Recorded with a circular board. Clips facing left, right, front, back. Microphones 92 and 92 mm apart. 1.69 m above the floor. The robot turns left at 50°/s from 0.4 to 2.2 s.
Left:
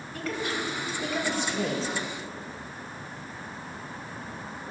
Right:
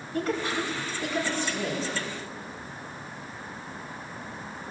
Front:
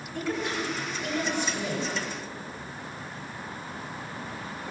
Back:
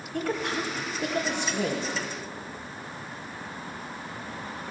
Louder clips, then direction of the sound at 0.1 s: Right 4 dB, back 1 dB; 145° right.